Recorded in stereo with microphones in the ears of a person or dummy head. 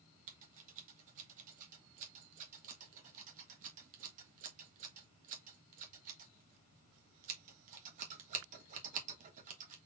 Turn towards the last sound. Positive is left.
turn(degrees=-45)  # may be behind; listen again after turning